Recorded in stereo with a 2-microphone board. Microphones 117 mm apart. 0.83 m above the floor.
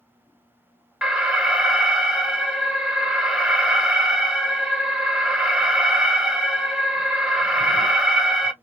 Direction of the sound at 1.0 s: 5° right (ahead or behind).